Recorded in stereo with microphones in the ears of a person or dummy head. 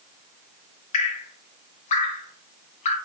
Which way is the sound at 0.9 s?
35° left (ahead or behind).